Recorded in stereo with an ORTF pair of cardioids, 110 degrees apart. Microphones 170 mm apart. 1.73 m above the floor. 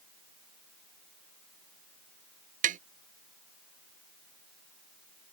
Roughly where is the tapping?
Ahead right.